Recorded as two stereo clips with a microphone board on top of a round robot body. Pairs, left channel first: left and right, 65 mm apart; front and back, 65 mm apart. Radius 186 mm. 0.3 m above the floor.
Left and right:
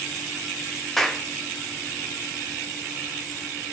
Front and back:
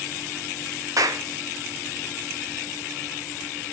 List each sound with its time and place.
1.0 s a clap: 175° left, 1.1 m